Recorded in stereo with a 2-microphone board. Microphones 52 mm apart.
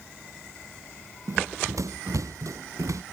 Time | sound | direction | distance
1.3 | running footsteps | 80° right | ?